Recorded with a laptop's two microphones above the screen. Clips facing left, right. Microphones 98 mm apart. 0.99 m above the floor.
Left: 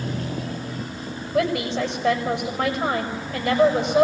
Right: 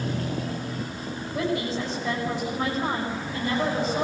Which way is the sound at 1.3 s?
80° left.